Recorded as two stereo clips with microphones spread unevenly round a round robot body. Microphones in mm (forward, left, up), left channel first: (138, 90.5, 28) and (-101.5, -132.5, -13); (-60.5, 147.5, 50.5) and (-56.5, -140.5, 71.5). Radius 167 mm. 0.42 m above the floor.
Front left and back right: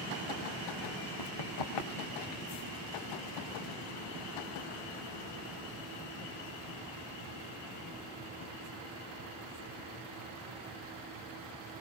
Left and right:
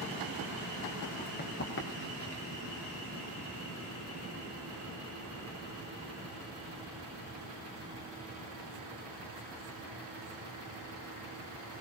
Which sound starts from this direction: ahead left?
Running footsteps, at 1.2 s.